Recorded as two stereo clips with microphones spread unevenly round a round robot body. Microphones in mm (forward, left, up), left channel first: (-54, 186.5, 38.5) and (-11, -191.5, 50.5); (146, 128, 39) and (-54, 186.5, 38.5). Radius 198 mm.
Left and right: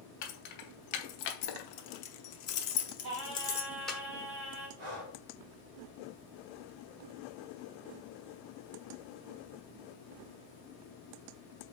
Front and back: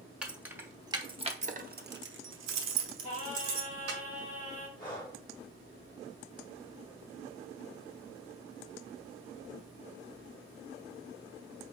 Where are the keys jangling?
80° left, 1.3 m; by 4.0 s 175° right, 1.2 m.